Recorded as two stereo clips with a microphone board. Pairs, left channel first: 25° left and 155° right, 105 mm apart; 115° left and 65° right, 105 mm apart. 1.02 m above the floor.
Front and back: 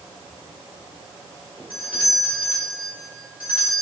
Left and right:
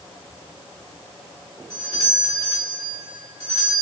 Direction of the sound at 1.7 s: 60° left.